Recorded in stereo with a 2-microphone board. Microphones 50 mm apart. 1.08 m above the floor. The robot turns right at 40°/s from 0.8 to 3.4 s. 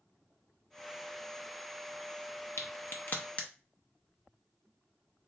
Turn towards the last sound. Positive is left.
turn(degrees=30)  # may be behind; listen again after turning